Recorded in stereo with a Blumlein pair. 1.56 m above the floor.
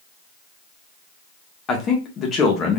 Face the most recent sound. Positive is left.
turn(degrees=25)